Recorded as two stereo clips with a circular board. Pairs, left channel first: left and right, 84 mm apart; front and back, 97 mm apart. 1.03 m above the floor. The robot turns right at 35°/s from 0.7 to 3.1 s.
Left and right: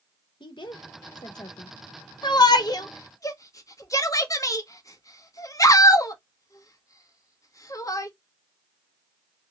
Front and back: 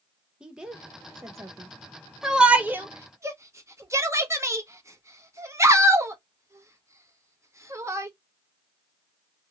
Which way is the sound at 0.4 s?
100° left.